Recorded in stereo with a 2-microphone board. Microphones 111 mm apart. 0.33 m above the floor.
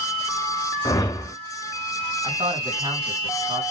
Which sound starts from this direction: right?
A man speaking, at 2.2 s.